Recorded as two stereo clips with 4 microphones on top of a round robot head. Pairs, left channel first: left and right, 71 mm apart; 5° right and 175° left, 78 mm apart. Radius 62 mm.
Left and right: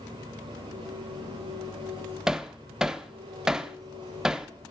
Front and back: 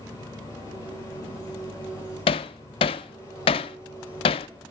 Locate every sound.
0.0 s an engine running: 65° right, 9.5 m
2.3 s hammering: 5° right, 0.7 m